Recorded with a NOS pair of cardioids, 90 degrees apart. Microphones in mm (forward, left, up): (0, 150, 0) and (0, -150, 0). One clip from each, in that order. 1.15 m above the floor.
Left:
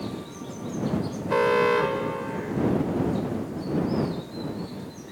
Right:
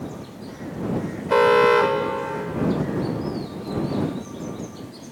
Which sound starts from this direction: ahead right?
An alarm, at 1.3 s.